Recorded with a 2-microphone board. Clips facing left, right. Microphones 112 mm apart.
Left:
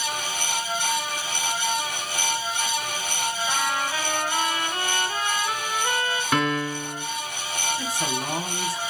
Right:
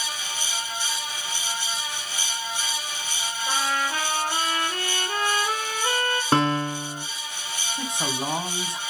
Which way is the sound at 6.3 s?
30° right (ahead or behind).